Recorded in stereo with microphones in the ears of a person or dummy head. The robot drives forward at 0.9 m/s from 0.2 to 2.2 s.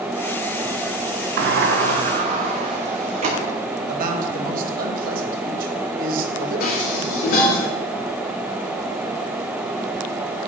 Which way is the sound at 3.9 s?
50° right (ahead or behind).